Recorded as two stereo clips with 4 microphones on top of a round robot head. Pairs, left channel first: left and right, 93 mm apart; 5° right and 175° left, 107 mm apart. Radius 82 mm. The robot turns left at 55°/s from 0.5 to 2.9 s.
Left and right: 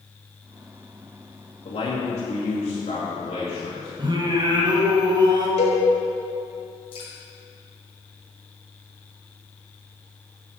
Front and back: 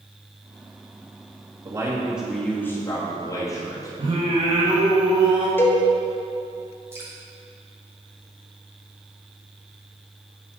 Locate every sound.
1.6 s a man speaking: 120° left, 2 m; by 3.9 s 50° left, 2 m
4.0 s singing: 125° right, 1.6 m
5.6 s a cowbell: 65° left, 1.5 m
6.9 s dripping: 105° left, 3 m